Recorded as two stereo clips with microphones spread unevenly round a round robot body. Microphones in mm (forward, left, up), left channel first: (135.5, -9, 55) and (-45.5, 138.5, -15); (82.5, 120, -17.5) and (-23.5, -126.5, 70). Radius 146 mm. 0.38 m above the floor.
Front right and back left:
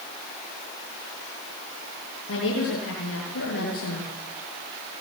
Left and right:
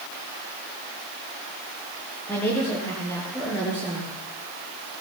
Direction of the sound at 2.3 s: 15° right.